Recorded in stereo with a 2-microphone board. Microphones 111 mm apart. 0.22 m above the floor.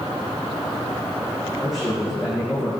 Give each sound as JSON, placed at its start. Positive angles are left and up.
{"t": 1.6, "sound": "a man speaking", "side_deg": -5, "distance_m": 10.0}